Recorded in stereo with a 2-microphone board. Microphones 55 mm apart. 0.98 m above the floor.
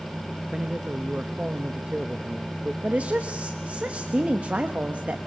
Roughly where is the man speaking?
Centre.